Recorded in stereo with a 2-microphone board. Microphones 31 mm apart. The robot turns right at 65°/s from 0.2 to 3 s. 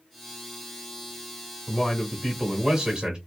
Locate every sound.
1.7 s a man speaking: 145° left, 1.2 m; by 3.2 s 130° right, 1.2 m